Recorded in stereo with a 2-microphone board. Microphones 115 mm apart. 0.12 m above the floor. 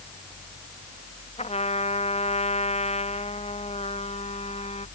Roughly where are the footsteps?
I don't hear footsteps.